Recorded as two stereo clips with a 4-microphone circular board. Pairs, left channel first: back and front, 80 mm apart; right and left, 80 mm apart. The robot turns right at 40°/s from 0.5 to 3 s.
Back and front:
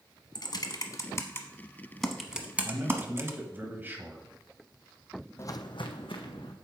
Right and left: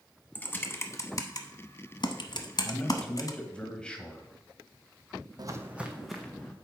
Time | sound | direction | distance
0.3 | typing on a keyboard | 155° right | 0.8 m
2.6 | a man speaking | 45° right | 1.2 m
5.4 | footsteps | 125° left | 0.6 m